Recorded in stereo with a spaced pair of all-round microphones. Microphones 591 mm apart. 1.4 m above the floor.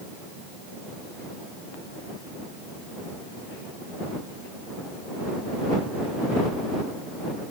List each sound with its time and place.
Only background noise.